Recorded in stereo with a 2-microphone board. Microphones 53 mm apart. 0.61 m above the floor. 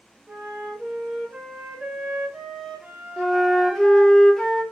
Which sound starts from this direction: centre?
A flute, at 3.2 s.